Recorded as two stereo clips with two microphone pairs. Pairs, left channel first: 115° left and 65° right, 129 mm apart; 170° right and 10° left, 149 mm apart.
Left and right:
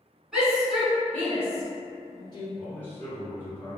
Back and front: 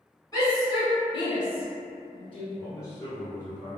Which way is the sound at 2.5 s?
165° left.